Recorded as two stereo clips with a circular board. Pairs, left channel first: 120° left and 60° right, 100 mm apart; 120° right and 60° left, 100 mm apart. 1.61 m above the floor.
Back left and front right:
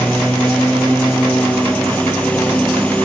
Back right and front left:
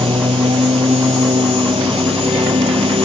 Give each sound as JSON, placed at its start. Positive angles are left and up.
{"t": 0.0, "sound": "a lawn mower", "azimuth_deg": 45}